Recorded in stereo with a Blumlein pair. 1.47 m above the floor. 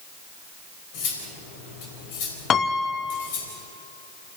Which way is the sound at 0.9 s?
45° left.